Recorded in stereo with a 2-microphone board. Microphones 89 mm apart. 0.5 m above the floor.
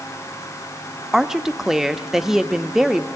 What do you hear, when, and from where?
1.1 s a woman speaking: 5° right (ahead or behind), 0.7 m